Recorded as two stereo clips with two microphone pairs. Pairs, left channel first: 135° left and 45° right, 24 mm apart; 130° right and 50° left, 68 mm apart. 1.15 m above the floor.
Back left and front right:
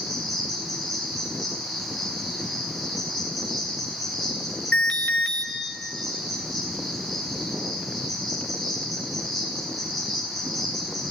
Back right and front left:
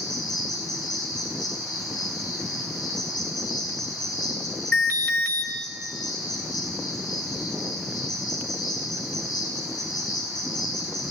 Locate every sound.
0.0 s an insect: 120° right, 10 m
4.7 s an alarm: 165° left, 4.5 m